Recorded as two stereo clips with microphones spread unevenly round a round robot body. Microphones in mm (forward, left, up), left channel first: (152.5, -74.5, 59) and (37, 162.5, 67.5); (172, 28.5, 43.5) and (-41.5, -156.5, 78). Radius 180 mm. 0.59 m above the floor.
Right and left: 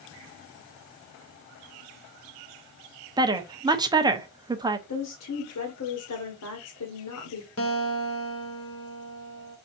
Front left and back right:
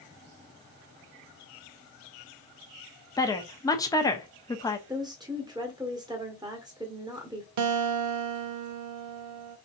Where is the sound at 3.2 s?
65° left, 0.8 m.